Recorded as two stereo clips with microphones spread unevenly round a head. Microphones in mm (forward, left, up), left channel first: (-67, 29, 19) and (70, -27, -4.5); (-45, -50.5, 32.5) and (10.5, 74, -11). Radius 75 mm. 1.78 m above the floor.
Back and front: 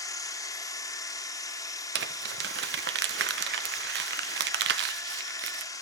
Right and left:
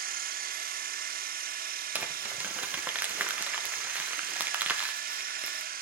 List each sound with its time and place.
0.0 s a machine running: 90° left, 1.7 m
1.9 s crumpling: 25° right, 1.1 m